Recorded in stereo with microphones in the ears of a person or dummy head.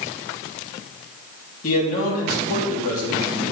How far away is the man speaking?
About 3 m.